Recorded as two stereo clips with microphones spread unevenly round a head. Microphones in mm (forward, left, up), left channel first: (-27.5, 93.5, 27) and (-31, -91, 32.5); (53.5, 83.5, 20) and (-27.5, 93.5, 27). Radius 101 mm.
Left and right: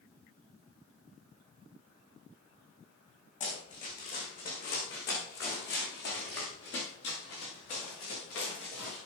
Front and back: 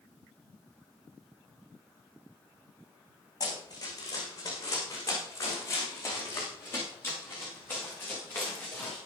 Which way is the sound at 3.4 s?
35° left.